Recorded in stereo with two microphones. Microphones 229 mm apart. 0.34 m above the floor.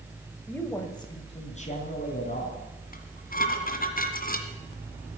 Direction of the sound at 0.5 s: 5° left (ahead or behind).